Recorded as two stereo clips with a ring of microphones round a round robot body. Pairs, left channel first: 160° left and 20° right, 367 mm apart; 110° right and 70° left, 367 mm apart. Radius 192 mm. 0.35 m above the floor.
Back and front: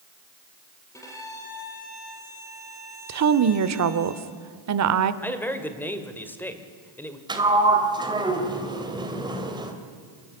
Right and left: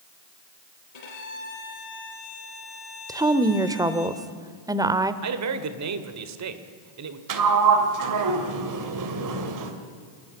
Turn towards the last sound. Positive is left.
turn(degrees=55)